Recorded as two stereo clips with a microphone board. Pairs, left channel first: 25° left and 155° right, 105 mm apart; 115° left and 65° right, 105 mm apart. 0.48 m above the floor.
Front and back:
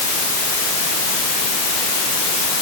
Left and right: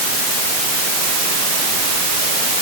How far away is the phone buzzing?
I don't hear a phone buzzing.